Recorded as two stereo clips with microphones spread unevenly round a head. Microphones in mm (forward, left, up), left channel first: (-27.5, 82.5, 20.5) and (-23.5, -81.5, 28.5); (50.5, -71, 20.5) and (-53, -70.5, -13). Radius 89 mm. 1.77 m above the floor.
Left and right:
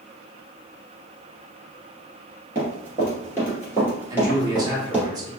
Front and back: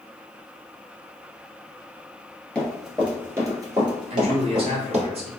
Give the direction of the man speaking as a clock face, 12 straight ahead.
5 o'clock.